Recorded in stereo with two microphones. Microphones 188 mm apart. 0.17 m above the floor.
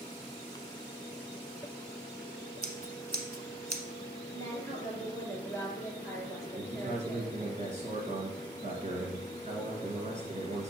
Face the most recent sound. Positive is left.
turn(degrees=-35)  # may be behind; listen again after turning